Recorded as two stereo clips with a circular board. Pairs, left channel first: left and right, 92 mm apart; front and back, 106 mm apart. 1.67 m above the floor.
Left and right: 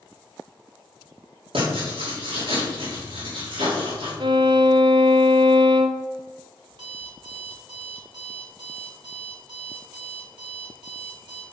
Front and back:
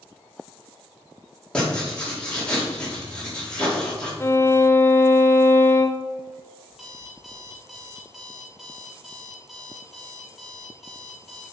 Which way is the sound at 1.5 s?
80° right.